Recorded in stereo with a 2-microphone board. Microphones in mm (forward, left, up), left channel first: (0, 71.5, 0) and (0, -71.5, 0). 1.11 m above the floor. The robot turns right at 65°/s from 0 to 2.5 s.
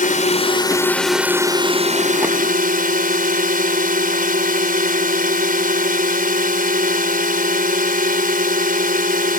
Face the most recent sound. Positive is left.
turn(degrees=-90)